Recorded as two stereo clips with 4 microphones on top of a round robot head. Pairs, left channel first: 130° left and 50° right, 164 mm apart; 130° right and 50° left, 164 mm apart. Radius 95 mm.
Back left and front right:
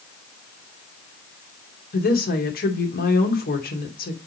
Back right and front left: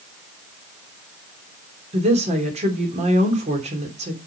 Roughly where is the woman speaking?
Left.